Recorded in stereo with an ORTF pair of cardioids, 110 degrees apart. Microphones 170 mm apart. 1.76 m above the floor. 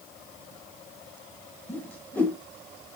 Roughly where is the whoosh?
Ahead.